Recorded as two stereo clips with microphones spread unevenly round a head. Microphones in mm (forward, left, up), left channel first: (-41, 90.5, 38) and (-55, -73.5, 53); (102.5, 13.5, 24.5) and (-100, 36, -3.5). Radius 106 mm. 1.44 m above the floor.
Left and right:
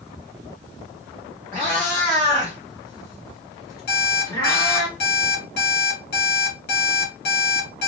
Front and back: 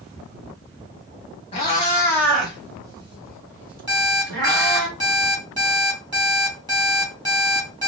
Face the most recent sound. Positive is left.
turn(degrees=100)